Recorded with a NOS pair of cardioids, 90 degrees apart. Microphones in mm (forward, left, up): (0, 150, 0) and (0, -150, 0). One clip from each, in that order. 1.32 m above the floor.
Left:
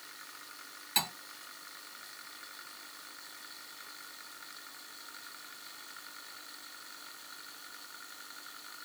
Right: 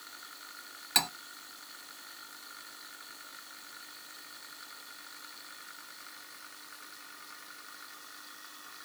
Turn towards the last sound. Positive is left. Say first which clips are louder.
# right 3 dB
turn(degrees=-50)